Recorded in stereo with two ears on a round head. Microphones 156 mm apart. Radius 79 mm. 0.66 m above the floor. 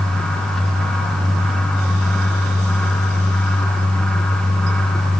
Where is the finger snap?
No finger snap in this recording.